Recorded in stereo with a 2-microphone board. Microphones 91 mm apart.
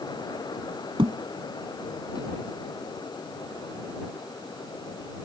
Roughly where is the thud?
Right.